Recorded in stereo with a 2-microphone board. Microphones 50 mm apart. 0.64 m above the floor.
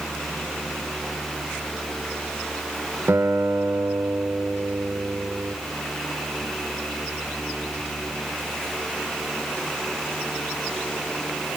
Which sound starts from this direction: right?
A guitar, at 3.1 s.